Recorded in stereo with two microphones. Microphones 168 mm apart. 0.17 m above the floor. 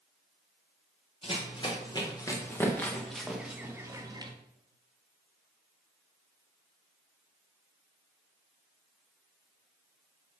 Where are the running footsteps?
35° left (ahead or behind), 2.5 m; by 4.3 s 25° right (ahead or behind), 1.8 m.